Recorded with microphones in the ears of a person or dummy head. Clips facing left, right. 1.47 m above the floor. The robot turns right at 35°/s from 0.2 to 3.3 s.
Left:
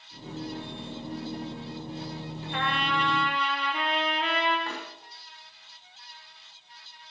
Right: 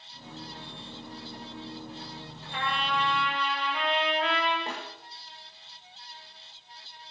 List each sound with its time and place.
2.5 s a trumpet: 60° left (ahead or behind), 6 m; by 4.6 s 85° left, 6 m
4.7 s a snare drum: 20° right (ahead or behind), 6.5 m